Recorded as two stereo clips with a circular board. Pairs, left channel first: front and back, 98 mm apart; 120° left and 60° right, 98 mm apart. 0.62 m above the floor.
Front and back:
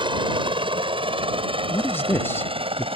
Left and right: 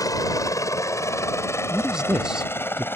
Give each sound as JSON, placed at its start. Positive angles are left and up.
{"t": 0.0, "sound": "a helicopter", "azimuth_deg": 165}
{"t": 1.7, "sound": "a man speaking", "azimuth_deg": 15}